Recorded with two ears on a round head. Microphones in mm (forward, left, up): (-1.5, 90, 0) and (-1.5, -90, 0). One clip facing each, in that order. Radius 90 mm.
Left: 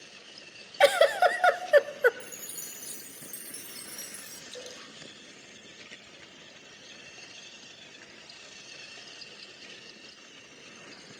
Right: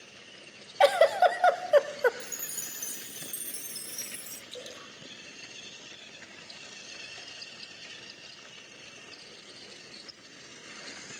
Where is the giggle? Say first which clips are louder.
Even; 20° left (ahead or behind), 0.6 m.